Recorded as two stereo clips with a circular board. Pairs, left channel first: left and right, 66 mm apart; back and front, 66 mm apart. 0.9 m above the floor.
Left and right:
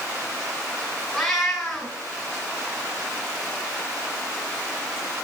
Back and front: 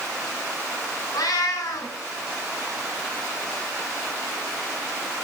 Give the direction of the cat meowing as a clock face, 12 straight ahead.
6 o'clock.